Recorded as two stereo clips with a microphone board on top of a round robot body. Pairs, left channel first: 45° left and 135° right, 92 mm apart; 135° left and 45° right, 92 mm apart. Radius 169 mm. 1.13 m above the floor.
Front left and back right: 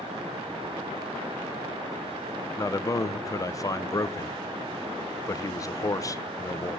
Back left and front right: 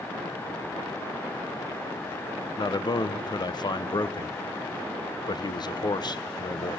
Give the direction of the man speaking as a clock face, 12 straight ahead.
9 o'clock.